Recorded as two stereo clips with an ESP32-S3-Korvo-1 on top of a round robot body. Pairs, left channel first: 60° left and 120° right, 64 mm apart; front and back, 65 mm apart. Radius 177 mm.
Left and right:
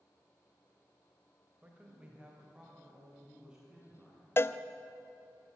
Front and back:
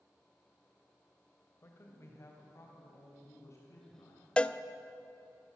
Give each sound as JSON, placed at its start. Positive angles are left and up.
{"t": 1.6, "sound": "a man speaking", "azimuth_deg": -55, "distance_m": 3.0}
{"t": 4.4, "sound": "a cowbell", "azimuth_deg": 65, "distance_m": 0.8}